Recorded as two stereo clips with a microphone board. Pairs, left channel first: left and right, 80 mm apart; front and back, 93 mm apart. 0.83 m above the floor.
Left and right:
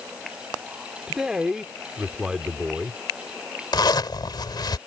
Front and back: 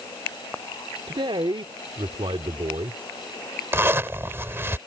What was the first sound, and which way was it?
A man speaking, 170° right.